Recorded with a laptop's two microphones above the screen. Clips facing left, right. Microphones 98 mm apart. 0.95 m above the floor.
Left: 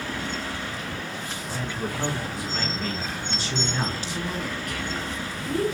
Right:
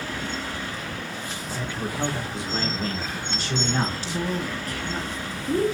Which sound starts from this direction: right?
A woman speaking, at 4.0 s.